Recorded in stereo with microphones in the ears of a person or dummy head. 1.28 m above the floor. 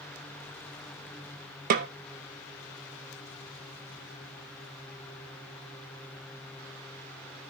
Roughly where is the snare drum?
Right.